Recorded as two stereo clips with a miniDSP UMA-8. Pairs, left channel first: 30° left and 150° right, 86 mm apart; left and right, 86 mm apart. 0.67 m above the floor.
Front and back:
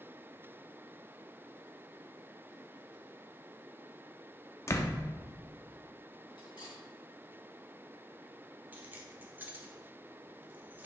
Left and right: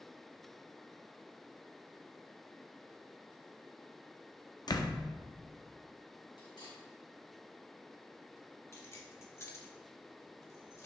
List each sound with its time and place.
4.7 s a door slam: 80° left, 0.7 m
6.4 s cutlery clinking: 60° left, 3 m
8.7 s keys jangling: 145° left, 1.3 m